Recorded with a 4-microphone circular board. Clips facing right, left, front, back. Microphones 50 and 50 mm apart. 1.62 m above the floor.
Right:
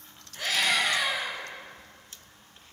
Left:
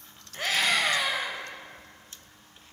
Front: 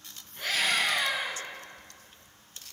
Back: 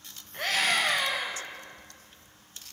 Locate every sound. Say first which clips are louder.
0.3 s a scream: left 1 dB, back 1 dB; 145° left, 8.5 m